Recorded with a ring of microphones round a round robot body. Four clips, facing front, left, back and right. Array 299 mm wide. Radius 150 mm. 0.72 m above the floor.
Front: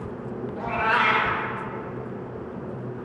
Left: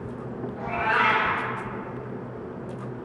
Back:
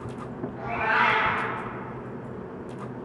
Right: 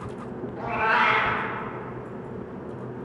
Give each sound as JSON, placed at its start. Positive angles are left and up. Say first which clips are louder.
{"t": 0.6, "sound": "a cat meowing", "louder": "right 1 dB, front 1 dB", "azimuth_deg": -35, "distance_m": 1.0}